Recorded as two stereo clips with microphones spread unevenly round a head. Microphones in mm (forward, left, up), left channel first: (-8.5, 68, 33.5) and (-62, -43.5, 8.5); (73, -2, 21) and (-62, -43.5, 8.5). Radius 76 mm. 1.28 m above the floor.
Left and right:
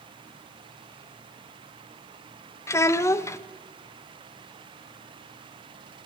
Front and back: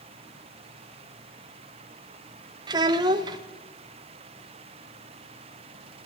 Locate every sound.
2.7 s a child speaking: 130° left, 0.5 m